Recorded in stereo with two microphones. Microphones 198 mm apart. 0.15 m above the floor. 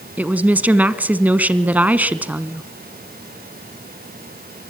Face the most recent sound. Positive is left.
turn(degrees=-10)  # may be behind; listen again after turning